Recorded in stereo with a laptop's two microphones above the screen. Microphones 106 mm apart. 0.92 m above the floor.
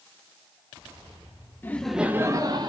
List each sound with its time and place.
1.6 s laughter: 20° left (ahead or behind), 1.0 m; by 2.7 s 45° right (ahead or behind), 1.6 m